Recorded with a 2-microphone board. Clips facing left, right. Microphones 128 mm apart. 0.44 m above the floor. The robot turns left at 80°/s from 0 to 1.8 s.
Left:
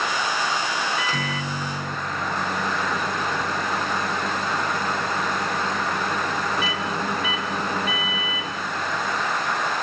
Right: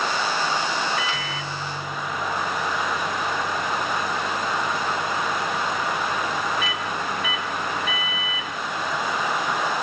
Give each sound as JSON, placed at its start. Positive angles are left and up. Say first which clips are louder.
{"t": 1.0, "sound": "a microwave", "louder": "left 2 dB", "azimuth_deg": 120, "distance_m": 0.9}